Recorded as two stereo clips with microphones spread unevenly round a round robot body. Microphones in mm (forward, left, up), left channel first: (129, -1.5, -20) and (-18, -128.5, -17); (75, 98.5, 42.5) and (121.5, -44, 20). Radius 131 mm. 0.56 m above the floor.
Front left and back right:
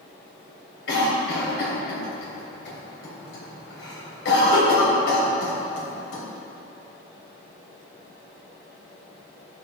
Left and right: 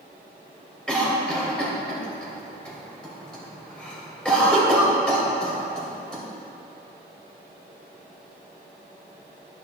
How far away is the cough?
About 2.5 m.